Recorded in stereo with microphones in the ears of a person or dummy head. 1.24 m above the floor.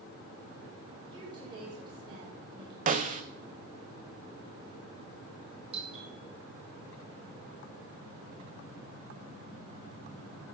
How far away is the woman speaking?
About 4.5 m.